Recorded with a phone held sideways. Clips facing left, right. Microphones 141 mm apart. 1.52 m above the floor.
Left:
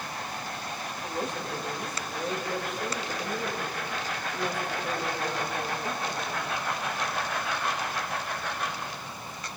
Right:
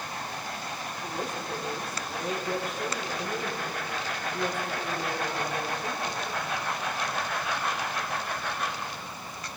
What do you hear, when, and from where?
1.0 s a woman speaking: 50° right (ahead or behind), 6.5 m